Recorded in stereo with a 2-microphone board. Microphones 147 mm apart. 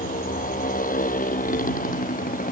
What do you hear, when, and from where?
0.0 s a motorcycle: 70° left (ahead or behind)